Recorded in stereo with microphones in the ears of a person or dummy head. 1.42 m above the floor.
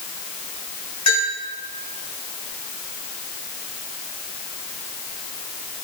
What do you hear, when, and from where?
1.1 s a bell: 40° left (ahead or behind), 4.5 m